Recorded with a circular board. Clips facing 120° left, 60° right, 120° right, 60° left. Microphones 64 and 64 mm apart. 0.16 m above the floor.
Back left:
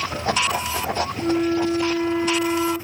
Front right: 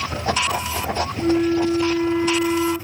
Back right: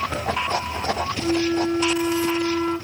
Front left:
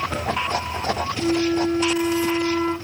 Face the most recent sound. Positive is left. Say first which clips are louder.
# front right 3 dB, front left 2 dB
turn(degrees=-20)